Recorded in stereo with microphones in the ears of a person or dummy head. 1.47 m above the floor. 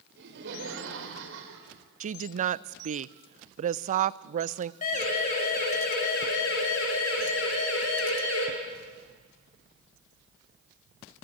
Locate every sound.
0.2 s laughter: 65° right (ahead or behind), 5 m; by 1.8 s 80° right, 4.5 m
2.0 s a woman speaking: 40° right (ahead or behind), 0.6 m
4.8 s a siren: 45° left (ahead or behind), 5 m; by 8.5 s 85° left, 6 m